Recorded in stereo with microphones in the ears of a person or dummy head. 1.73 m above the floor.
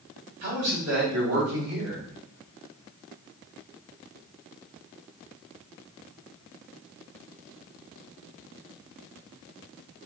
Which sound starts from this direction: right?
A man speaking, at 0.4 s.